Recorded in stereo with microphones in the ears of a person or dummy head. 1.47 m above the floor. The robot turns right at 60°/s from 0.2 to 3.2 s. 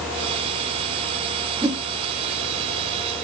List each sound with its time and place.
1.6 s a whoosh: 15° right (ahead or behind), 1.4 m; by 1.8 s 25° right (ahead or behind), 1.4 m